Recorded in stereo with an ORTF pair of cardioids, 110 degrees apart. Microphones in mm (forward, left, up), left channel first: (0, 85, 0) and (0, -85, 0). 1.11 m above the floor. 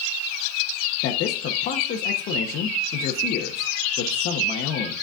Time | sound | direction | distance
1.0 | a man speaking | 70° left | 1.2 m